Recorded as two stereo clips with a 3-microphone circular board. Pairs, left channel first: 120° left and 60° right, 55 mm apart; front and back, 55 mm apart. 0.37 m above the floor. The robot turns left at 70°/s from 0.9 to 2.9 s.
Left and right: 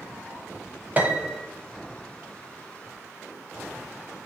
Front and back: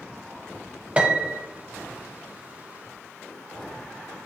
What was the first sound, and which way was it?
A piano, 115° right.